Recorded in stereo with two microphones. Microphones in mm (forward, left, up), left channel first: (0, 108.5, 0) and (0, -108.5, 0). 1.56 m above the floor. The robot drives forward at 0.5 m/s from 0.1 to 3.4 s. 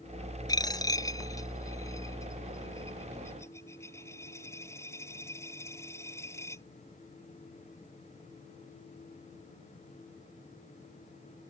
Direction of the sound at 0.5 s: 15° left (ahead or behind).